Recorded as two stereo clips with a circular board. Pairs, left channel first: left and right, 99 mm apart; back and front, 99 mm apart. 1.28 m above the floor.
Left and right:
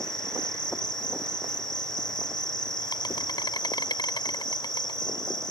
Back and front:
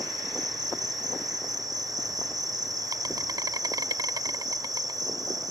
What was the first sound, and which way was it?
An insect, 50° left.